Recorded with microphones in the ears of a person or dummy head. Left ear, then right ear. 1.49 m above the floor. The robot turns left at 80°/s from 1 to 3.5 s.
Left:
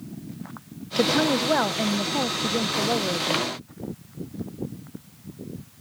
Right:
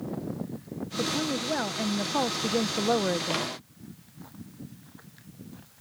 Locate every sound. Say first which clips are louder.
1.0 s a woman speaking: left 8 dB; 70° left; by 3.5 s 130° right